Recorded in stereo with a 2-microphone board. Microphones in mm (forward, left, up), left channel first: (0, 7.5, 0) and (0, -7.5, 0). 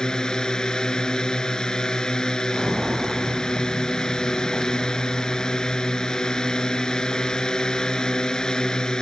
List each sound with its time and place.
0.0 s a drone: 60° left (ahead or behind)
2.5 s footsteps: 35° right (ahead or behind); by 8.9 s 5° right (ahead or behind)